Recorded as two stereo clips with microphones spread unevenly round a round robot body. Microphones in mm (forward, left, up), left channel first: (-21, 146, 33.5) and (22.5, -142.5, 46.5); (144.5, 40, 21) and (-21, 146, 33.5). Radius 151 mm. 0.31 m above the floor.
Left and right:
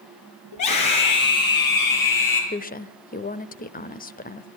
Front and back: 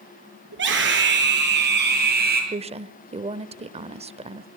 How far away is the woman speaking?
About 1.1 m.